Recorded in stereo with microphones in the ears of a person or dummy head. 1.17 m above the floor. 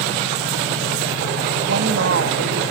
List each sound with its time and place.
1.6 s a woman speaking: 60° right (ahead or behind), 1.5 m